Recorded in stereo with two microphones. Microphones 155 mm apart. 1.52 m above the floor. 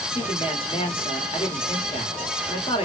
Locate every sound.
0.1 s a man speaking: 35° left (ahead or behind), 1.2 m